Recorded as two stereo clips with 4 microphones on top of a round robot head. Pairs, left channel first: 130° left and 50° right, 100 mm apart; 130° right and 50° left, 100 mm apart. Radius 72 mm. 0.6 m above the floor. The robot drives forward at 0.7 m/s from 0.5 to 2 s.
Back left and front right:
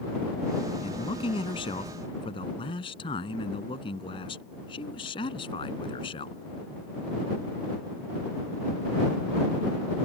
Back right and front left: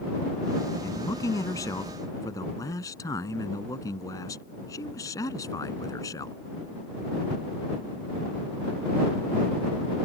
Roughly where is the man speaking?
Behind.